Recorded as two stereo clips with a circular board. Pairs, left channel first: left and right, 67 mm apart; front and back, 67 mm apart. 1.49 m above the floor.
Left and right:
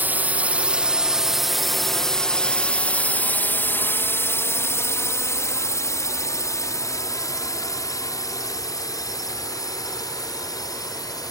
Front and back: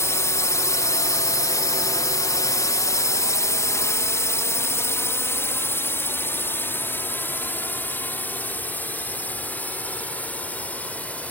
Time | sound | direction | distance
0.0 | a drone | 35° right | ?